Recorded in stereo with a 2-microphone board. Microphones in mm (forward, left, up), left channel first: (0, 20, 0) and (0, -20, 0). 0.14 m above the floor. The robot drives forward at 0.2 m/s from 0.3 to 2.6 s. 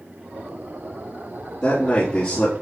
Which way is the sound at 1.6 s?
30° left (ahead or behind).